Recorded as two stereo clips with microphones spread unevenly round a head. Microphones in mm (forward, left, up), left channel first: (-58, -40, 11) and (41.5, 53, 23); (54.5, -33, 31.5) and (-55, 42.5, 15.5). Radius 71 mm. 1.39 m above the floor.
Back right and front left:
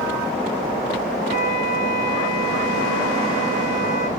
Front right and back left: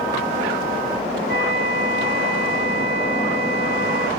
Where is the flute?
160° right, 4 m.